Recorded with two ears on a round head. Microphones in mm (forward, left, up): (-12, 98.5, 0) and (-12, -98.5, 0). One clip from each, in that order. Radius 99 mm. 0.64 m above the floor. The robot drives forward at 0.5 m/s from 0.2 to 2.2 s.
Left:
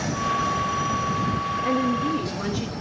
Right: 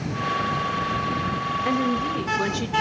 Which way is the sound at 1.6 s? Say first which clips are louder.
Left 1 dB; 25° right (ahead or behind).